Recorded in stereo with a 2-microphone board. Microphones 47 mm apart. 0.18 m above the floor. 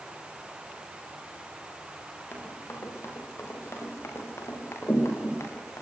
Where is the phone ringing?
I don't hear a phone ringing.